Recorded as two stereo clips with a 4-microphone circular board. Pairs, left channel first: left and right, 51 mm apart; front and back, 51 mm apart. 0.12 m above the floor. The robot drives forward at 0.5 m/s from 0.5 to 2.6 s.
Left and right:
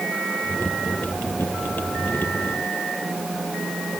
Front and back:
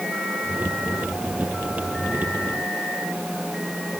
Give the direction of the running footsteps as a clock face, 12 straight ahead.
No running footsteps in this recording.